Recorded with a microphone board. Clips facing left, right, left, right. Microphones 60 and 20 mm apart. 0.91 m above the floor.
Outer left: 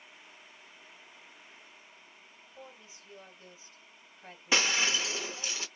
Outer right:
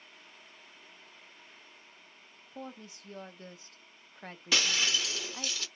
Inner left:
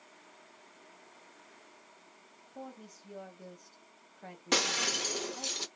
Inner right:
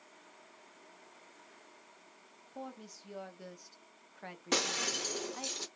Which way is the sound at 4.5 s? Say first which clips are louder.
Outer left 2 dB, inner left 3 dB; 25° left (ahead or behind).